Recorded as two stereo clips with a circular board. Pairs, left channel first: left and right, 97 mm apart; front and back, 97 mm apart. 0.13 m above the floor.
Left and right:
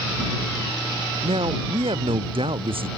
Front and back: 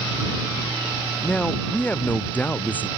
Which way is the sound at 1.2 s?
80° right.